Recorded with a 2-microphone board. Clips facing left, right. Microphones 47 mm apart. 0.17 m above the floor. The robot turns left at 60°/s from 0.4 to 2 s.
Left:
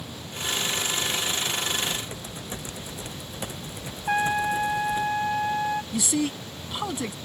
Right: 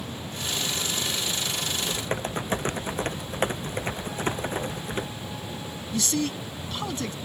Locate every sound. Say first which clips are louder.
1.8 s typing on a keyboard: right 2 dB; 40° right (ahead or behind); by 5.1 s 55° right (ahead or behind)
4.1 s a trumpet: left 11 dB; 75° left (ahead or behind)
5.9 s a man speaking: left 1 dB; 15° left (ahead or behind)